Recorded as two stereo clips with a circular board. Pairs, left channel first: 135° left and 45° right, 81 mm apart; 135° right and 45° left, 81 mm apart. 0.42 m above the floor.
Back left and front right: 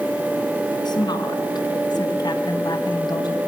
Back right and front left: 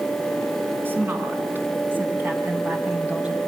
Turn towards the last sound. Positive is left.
turn(degrees=120)